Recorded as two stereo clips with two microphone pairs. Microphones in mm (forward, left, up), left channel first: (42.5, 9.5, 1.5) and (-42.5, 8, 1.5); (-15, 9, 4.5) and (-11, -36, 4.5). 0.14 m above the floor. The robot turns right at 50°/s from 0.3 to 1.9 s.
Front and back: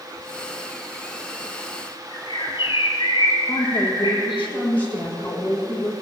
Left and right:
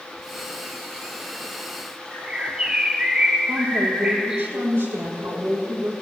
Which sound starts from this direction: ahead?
A bird, at 2.1 s.